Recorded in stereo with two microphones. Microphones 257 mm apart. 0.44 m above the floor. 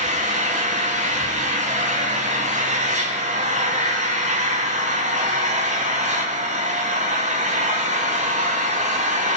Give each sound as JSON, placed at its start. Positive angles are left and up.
{"t": 0.0, "sound": "an engine running", "side_deg": -30, "distance_m": 2.5}